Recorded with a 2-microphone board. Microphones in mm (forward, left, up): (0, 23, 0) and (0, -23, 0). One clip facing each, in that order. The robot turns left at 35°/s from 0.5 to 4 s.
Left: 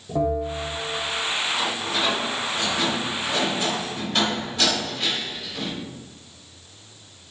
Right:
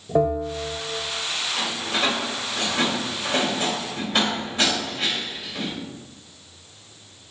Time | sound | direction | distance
0.1 | a bell | 50° right (ahead or behind) | 1.7 m
1.6 | a door slam | 70° right (ahead or behind) | 3 m